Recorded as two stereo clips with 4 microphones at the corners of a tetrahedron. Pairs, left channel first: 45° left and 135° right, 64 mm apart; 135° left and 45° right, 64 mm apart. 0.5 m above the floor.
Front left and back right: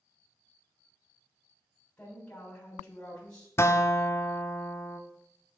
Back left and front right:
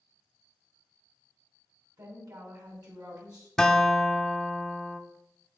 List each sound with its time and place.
2.0 s a woman speaking: 30° right, 3.5 m
3.6 s a guitar: 55° left, 0.8 m